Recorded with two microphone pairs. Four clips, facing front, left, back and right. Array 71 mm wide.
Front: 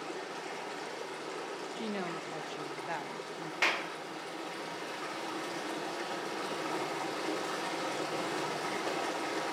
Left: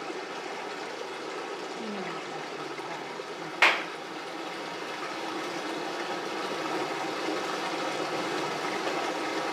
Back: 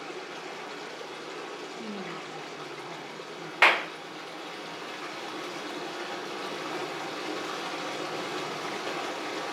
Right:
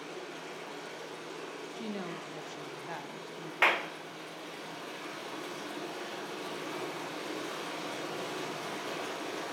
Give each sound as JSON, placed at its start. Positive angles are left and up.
{"t": 0.0, "sound": "running water", "azimuth_deg": 90, "distance_m": 3.0}
{"t": 1.8, "sound": "a woman speaking", "azimuth_deg": 0, "distance_m": 1.0}
{"t": 3.6, "sound": "a clap", "azimuth_deg": 160, "distance_m": 0.5}